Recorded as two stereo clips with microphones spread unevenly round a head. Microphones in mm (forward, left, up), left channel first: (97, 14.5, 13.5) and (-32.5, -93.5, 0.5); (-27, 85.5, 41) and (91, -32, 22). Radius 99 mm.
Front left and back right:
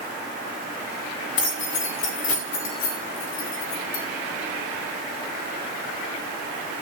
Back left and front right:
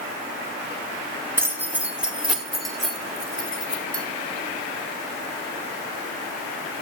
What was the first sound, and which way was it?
Keys jangling, 30° left.